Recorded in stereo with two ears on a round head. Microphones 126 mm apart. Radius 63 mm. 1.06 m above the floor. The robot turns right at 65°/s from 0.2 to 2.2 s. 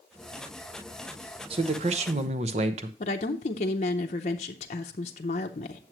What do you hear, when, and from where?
1.5 s a man speaking: 120° right, 0.8 m; by 2.9 s 75° right, 0.8 m
3.0 s a woman speaking: 50° left (ahead or behind), 0.7 m